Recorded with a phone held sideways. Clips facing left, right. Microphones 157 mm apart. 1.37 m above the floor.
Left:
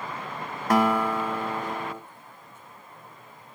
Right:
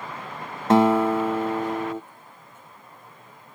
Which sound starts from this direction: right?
A guitar, at 0.7 s.